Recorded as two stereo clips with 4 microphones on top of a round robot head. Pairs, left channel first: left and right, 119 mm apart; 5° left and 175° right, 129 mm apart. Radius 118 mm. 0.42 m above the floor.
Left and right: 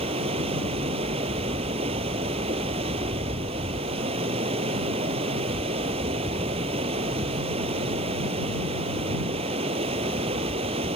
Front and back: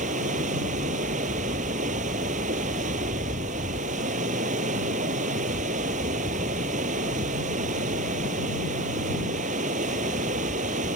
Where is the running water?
140° right.